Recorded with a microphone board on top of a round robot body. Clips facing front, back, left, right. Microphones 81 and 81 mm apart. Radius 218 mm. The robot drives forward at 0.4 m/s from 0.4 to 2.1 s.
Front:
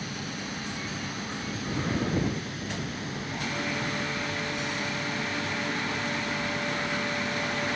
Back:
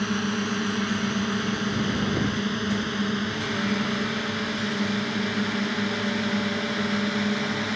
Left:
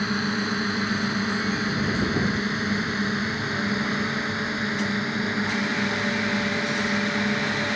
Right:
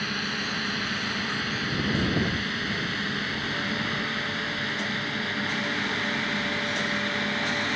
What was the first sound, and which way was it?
A drone, 155° left.